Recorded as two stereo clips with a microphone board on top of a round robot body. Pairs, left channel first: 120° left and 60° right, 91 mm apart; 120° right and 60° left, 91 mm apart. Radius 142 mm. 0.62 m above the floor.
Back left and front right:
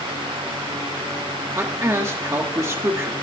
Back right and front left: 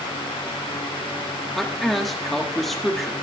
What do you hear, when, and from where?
1.6 s a man speaking: 35° right, 1.1 m